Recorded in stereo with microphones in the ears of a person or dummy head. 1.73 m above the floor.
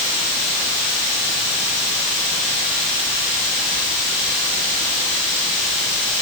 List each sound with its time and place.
0.0 s running water: 60° left (ahead or behind), 2.5 m